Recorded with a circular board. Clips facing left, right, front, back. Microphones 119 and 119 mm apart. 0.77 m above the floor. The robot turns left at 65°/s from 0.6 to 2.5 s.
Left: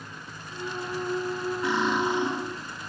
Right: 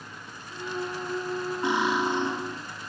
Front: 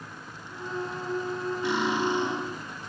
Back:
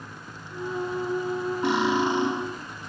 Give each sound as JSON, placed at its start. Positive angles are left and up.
{"t": 1.6, "sound": "cutlery clinking", "azimuth_deg": -155, "distance_m": 3.0}